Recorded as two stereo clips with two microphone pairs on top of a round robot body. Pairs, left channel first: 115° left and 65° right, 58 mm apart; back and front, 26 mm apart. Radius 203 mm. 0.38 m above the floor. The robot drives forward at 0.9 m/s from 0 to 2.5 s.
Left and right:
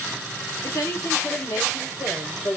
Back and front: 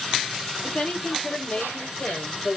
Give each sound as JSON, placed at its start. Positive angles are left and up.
{"t": 0.6, "sound": "a woman speaking", "azimuth_deg": 115, "distance_m": 1.9}